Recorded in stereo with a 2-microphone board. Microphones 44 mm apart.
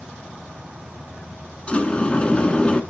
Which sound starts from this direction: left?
A sliding door, at 1.7 s.